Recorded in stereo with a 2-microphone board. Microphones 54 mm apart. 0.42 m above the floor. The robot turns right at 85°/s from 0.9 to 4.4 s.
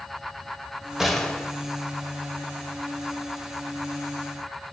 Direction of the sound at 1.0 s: 10° right.